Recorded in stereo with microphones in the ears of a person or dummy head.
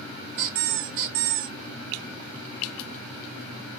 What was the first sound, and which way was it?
A squeak, 50° right (ahead or behind).